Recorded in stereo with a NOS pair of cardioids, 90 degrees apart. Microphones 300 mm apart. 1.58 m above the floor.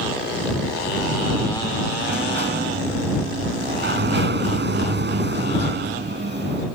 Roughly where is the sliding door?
Ahead right.